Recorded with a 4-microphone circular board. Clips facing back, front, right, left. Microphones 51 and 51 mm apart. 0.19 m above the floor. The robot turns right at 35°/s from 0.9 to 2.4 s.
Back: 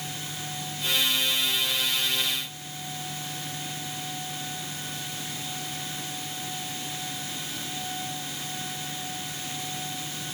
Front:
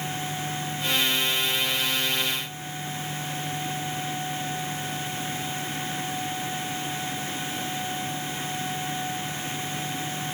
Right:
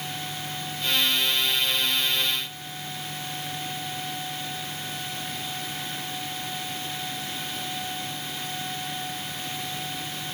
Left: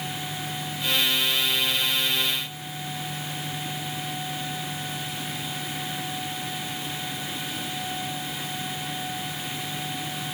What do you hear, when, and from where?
Only background noise.